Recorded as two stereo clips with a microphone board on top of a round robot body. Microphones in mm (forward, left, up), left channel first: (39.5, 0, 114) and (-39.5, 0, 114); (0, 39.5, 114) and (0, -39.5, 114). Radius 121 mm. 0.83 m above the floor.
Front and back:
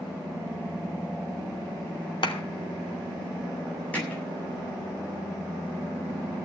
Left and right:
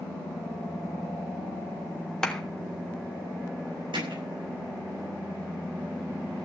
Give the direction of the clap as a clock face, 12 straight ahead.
12 o'clock.